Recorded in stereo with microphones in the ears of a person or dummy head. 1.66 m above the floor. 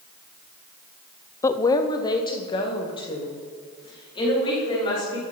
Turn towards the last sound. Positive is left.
turn(degrees=30)  # may be behind; listen again after turning